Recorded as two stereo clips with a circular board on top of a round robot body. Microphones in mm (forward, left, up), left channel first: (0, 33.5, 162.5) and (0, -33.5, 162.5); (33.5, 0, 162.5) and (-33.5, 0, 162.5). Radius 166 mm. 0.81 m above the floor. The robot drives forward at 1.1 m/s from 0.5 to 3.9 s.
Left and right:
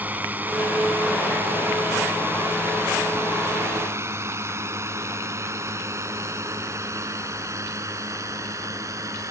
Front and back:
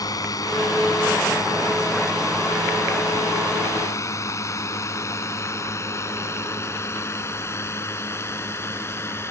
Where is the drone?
25° right; by 9.3 s 50° right.